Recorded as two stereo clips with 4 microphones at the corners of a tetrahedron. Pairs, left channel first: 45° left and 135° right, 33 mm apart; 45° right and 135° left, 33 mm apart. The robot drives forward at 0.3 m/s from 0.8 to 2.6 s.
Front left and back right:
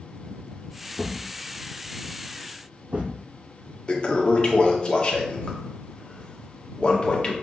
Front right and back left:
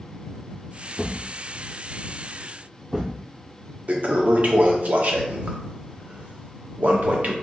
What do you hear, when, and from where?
1.0 s a thud: 115° right, 0.5 m; by 3.2 s 155° right, 0.8 m
3.9 s a toilet flushing: 100° left, 0.5 m